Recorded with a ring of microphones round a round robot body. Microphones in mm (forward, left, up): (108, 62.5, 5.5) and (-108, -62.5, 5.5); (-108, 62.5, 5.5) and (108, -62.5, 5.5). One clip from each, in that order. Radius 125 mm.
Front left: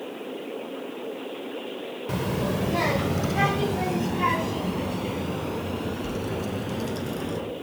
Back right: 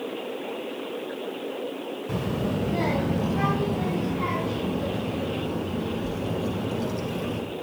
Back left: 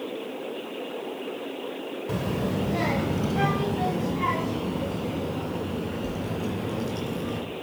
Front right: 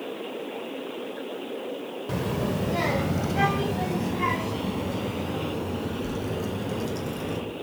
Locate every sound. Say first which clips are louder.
2.1 s a child speaking: front left 2 dB, front right 1 dB; 45° left, 0.7 m